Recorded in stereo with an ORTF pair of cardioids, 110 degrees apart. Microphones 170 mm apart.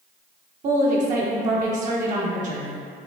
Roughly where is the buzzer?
No buzzer in this recording.